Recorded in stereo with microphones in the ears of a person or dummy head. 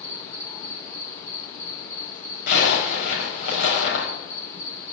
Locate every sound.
0.0 s an insect: 20° left (ahead or behind), 1.5 m
2.5 s a zipper: 75° left (ahead or behind), 4.5 m